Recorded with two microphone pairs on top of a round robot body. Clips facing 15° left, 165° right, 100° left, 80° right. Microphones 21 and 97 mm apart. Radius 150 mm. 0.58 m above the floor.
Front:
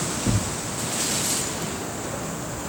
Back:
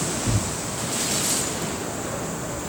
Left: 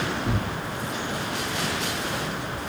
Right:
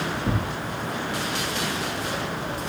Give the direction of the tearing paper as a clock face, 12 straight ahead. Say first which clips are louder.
Even, right 1 dB; 12 o'clock.